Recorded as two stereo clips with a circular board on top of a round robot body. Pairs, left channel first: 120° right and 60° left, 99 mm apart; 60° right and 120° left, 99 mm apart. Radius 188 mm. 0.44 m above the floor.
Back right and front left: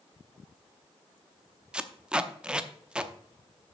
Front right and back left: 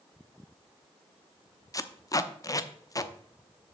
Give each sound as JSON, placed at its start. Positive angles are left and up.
{"t": 1.7, "sound": "tape being pulled", "azimuth_deg": -20, "distance_m": 0.8}